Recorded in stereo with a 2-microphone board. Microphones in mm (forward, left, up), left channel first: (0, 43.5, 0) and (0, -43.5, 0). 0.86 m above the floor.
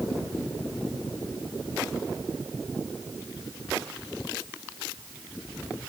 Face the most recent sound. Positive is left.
No sound to turn to.